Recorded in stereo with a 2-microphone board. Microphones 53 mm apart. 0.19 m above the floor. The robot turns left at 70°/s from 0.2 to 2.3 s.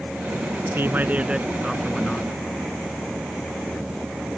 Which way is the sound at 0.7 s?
110° right.